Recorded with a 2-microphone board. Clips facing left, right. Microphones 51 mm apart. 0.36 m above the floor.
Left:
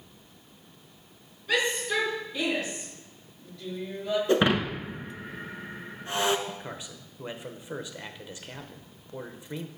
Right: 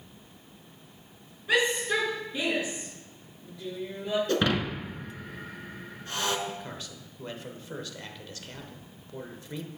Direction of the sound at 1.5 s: 20° right (ahead or behind).